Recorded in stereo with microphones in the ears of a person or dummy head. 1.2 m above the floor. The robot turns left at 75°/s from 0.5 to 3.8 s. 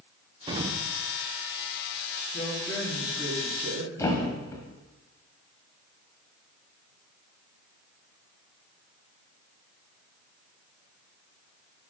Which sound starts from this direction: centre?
A thud, at 4.0 s.